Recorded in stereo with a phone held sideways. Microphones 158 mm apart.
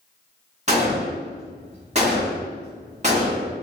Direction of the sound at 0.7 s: 45° right (ahead or behind).